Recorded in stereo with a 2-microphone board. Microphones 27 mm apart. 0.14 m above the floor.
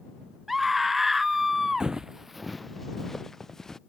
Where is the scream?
10° right (ahead or behind).